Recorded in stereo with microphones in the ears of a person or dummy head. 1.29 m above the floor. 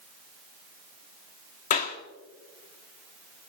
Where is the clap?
40° left (ahead or behind), 1.5 m.